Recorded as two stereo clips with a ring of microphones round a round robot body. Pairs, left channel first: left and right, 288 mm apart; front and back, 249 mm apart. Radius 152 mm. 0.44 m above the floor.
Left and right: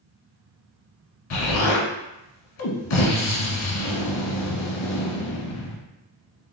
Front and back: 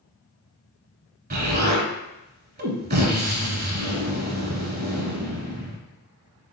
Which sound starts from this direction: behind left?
An explosion, at 1.3 s.